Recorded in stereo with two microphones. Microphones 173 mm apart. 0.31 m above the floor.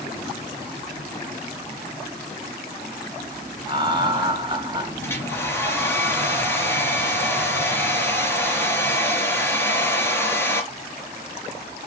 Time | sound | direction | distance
3.7 | laughter | 25° right (ahead or behind) | 2 m
5.0 | a hair dryer | 15° left (ahead or behind) | 3.5 m